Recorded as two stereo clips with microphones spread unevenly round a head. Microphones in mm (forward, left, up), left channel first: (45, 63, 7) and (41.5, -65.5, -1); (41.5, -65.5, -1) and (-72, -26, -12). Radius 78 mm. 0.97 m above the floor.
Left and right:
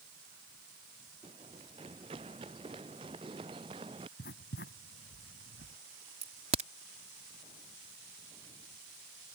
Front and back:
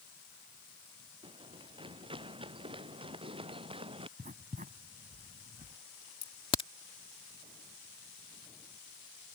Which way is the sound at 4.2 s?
110° left.